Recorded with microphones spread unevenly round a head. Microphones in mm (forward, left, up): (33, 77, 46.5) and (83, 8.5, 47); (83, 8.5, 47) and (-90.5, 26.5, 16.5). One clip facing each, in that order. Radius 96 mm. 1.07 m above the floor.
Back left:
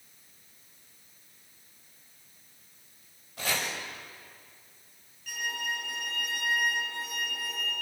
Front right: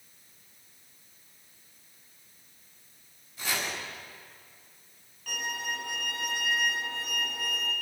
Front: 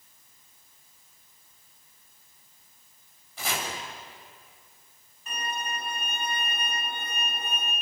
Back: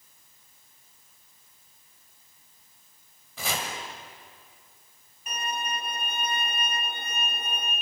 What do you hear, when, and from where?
3.4 s chopping: 175° left, 5.5 m
5.3 s a violin: 110° right, 5 m